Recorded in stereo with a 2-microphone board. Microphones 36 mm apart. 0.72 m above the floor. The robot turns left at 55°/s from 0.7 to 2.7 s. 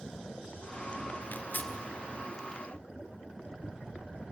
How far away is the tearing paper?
About 1.9 m.